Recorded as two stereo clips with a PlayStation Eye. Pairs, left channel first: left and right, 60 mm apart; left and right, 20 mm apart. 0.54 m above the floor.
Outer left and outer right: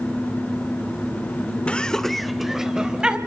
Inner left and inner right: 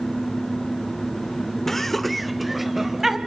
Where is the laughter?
20° left (ahead or behind), 1.4 m; by 3.2 s 15° right (ahead or behind), 3 m.